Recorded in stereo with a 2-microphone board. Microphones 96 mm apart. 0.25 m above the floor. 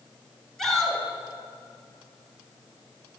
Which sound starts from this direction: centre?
A shout, at 0.6 s.